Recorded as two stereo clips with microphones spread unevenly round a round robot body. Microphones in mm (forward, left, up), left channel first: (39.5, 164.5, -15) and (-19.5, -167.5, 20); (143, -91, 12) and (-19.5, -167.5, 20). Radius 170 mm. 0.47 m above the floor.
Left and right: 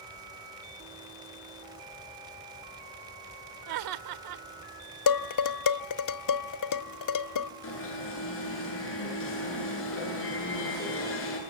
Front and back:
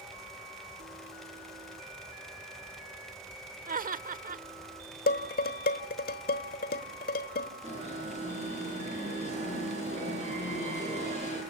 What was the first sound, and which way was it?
Laughter, 120° right.